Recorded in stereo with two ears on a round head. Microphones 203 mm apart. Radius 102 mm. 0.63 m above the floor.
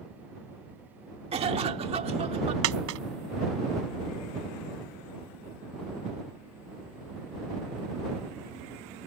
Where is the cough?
25° right (ahead or behind).